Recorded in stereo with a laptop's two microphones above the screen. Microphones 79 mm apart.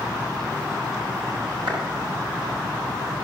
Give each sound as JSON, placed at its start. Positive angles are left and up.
{"t": 1.7, "sound": "a clap", "side_deg": -85, "distance_m": 7.0}